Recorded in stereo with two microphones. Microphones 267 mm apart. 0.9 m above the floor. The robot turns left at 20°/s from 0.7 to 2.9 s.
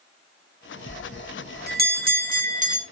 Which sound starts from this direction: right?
A bell, at 0.9 s.